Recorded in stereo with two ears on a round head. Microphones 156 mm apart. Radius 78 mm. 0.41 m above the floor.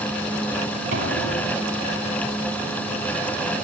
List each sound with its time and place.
0.9 s an explosion: 45° right (ahead or behind), 6.5 m